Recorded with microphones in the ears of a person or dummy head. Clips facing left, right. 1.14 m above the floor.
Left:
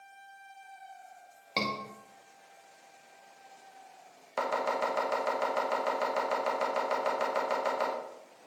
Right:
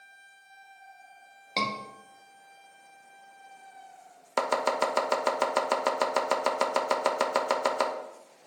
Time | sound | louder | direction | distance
1.6 | a scream | right 1 dB | centre (ahead or behind) | 1.9 m
4.4 | chopping | right 4 dB | 70° right (ahead or behind) | 0.9 m